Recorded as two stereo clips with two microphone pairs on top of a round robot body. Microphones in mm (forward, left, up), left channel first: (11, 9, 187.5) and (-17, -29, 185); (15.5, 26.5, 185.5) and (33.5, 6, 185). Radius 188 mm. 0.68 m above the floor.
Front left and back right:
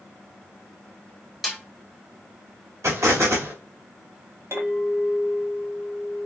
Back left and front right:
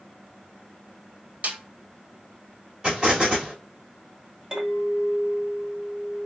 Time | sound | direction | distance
1.4 | a snare drum | 40° right | 1.3 m
2.8 | an explosion | 115° right | 1.9 m
4.5 | a clink | 120° right | 3 m